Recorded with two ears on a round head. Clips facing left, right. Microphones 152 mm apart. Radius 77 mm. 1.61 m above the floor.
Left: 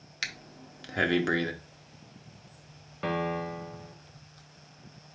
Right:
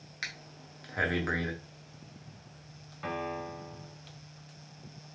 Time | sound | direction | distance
0.2 | breathing | 30° left (ahead or behind) | 0.8 m
3.0 | a piano | 50° left (ahead or behind) | 0.8 m